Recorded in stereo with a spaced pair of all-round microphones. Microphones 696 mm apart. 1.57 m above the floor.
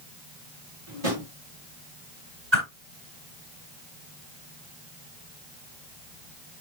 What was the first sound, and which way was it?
A drawer, 50° right (ahead or behind).